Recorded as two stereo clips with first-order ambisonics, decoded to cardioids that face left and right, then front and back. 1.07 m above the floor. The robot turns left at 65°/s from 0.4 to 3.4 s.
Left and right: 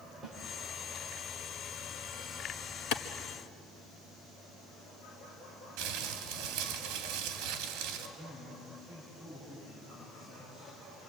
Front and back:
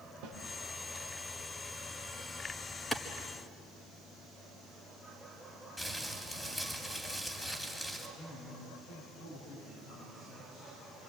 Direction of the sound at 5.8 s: 80° right.